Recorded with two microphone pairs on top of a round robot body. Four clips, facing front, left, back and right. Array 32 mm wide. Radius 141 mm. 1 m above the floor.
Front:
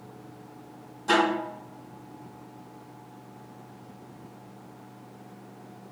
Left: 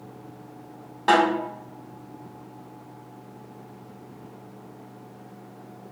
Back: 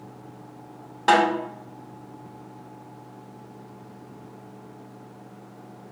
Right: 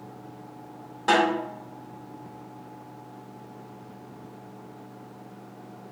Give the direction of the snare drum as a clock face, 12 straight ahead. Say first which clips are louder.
Left 2 dB, back 4 dB; 7 o'clock.